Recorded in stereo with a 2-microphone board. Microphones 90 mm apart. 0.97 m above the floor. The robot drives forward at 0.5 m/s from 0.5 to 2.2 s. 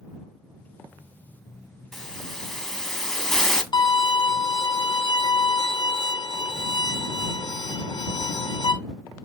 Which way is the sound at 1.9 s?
5° left (ahead or behind).